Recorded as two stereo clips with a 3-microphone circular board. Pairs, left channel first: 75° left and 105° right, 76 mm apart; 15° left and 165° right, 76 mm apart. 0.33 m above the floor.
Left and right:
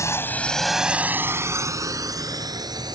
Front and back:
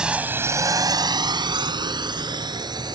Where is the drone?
115° left; by 3.0 s 135° right.